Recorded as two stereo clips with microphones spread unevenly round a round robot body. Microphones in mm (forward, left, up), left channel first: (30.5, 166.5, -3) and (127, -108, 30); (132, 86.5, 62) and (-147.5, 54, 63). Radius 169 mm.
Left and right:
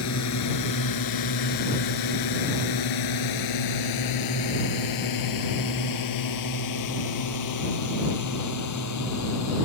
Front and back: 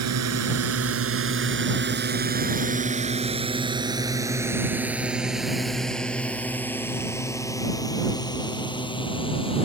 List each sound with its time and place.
0.0 s a drone: 155° left; by 9.7 s 80° left